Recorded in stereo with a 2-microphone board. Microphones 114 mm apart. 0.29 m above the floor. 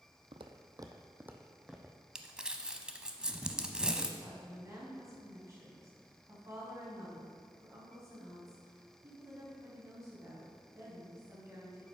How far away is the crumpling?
About 0.7 m.